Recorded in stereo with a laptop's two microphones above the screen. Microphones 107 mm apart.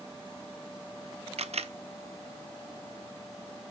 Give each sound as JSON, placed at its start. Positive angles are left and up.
{"t": 1.4, "sound": "a camera shutter", "side_deg": -80, "distance_m": 0.7}